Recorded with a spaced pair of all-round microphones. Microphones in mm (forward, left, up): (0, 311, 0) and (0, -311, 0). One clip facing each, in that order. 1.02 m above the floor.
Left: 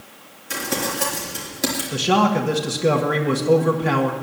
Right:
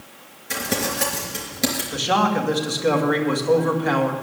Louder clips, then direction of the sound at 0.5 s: Even; 50° right (ahead or behind).